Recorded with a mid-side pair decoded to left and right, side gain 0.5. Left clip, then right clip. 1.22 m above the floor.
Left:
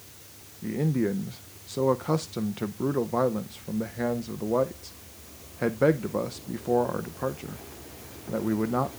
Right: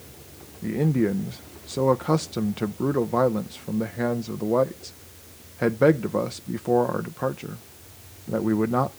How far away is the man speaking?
About 0.6 m.